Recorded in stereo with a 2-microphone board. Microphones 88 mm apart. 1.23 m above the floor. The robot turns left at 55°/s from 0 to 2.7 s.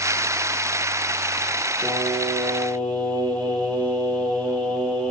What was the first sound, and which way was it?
Singing, 40° left.